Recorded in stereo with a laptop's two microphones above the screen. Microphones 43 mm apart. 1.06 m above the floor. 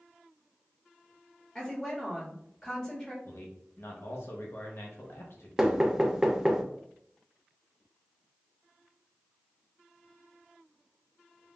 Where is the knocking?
10° right (ahead or behind), 0.5 m.